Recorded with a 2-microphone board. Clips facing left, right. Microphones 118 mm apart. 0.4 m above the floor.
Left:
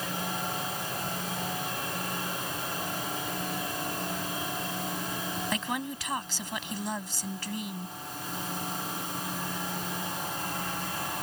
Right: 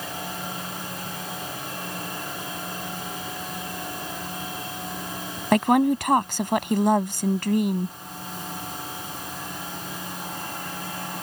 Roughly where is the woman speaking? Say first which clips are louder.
Right 20 dB; right.